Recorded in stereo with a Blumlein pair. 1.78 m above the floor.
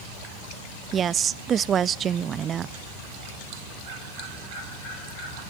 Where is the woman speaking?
25° right, 0.6 m.